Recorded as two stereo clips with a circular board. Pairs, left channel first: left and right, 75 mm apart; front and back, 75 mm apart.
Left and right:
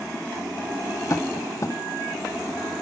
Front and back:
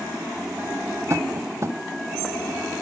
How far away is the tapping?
About 1.1 m.